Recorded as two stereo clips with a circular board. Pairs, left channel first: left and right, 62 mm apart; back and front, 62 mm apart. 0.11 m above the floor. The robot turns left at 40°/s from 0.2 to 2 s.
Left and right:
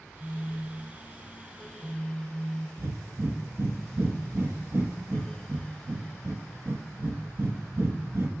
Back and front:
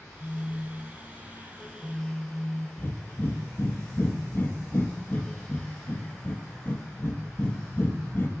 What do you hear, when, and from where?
0.2 s a phone buzzing: 150° left, 0.6 m; by 2.7 s 80° left, 0.6 m
2.8 s breathing: 130° right, 0.9 m